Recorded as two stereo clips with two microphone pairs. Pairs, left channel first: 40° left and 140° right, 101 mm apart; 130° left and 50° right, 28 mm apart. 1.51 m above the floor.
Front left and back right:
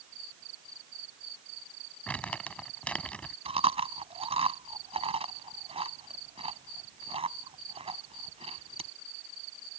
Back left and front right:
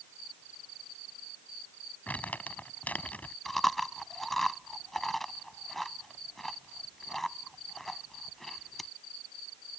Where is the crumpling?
115° left.